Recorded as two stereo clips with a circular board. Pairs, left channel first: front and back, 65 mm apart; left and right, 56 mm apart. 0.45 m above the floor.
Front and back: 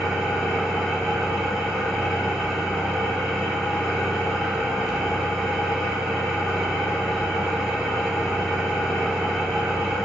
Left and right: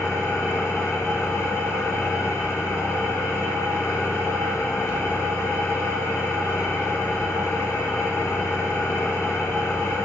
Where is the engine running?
85° left, 1.0 m.